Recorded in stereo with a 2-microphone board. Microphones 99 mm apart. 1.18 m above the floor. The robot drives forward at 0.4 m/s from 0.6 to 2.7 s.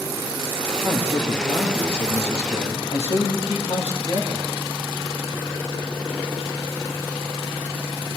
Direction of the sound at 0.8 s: 55° left (ahead or behind).